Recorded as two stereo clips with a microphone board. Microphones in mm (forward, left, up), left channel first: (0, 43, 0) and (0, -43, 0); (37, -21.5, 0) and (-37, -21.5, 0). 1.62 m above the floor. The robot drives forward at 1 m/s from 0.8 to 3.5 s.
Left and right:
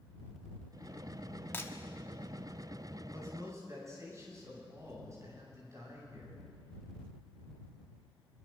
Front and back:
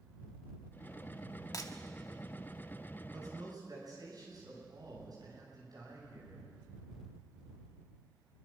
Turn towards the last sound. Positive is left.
turn(degrees=-145)